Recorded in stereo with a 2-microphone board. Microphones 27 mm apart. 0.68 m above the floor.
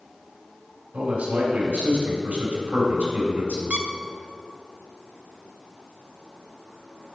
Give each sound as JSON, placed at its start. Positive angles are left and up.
{"t": 0.9, "sound": "a man speaking", "side_deg": -70, "distance_m": 3.5}
{"t": 3.7, "sound": "a squeak", "side_deg": -60, "distance_m": 0.9}